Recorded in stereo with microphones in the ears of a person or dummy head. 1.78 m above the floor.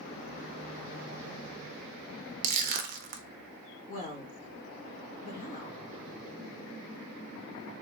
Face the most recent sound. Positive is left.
turn(degrees=40)  # may be behind; listen again after turning